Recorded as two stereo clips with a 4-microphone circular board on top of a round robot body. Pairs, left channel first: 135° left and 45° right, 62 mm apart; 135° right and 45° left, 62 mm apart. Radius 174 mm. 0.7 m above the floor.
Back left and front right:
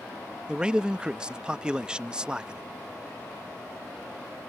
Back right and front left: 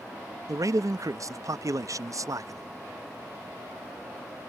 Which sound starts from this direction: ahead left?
A man speaking, at 0.5 s.